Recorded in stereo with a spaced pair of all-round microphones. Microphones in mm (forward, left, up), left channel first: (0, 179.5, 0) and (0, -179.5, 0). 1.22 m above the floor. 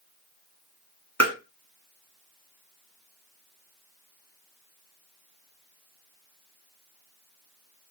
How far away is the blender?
No blender in this recording.